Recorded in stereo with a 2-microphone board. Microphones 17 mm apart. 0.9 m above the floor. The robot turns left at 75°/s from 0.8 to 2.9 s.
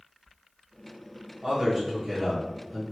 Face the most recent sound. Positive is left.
turn(degrees=145)